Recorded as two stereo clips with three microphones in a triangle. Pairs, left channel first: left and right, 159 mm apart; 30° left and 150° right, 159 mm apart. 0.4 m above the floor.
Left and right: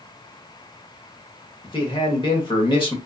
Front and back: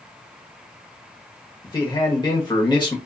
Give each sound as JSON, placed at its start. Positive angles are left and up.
{"t": 1.6, "sound": "a man speaking", "azimuth_deg": 65, "distance_m": 0.9}